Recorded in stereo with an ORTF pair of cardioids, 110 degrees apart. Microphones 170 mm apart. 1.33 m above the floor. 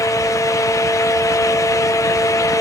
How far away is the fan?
About 1.0 m.